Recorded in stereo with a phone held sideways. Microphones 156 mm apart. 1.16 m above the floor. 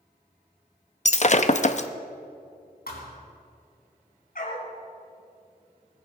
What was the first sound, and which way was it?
Breaking glass, 50° left (ahead or behind).